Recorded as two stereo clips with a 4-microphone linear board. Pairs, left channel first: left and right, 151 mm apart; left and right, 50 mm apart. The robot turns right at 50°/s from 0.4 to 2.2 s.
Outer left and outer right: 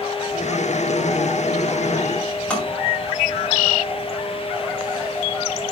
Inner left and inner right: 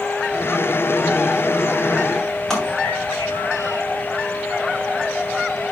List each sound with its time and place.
2.5 s tapping: 10° left (ahead or behind), 7 m